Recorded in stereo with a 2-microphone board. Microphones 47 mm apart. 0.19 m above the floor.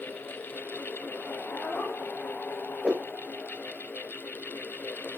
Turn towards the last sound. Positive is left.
turn(degrees=-25)  # may be behind; listen again after turning